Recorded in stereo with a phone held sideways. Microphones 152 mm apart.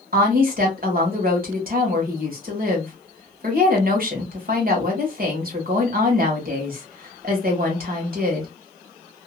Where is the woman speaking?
65° right (ahead or behind), 1.6 m.